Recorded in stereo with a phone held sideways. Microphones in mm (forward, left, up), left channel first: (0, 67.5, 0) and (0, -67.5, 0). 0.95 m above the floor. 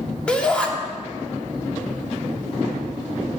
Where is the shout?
10° left (ahead or behind), 1.8 m.